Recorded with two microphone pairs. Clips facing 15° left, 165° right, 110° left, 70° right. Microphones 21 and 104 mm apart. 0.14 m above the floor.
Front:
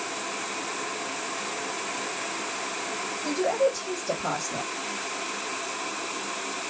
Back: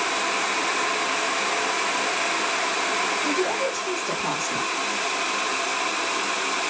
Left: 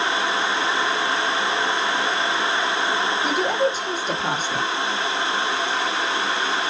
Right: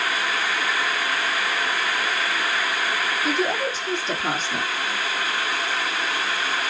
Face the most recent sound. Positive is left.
turn(degrees=140)